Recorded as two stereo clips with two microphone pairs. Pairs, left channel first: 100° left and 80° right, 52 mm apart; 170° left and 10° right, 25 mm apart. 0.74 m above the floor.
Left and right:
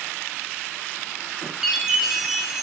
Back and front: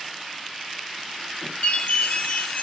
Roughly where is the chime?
Behind.